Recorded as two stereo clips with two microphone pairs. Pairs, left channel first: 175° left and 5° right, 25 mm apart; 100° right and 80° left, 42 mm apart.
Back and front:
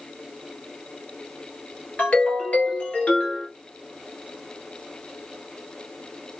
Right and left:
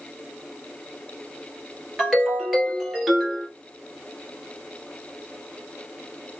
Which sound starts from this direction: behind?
A ringtone, at 2.0 s.